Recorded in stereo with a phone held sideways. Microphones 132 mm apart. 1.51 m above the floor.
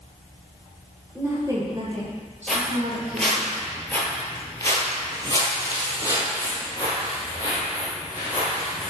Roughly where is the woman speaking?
Centre.